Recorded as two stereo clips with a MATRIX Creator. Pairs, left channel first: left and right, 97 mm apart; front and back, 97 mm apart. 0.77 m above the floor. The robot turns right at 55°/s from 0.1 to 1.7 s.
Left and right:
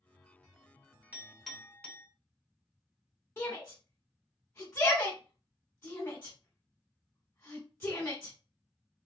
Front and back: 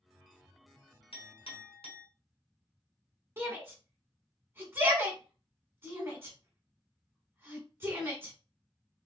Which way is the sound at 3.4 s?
140° left.